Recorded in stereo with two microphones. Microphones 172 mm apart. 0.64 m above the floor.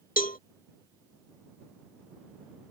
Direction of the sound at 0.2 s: 55° left (ahead or behind).